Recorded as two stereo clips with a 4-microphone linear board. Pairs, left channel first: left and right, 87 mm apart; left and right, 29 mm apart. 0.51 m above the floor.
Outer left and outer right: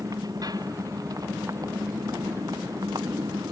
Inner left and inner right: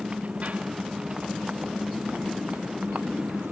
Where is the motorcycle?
45° right (ahead or behind).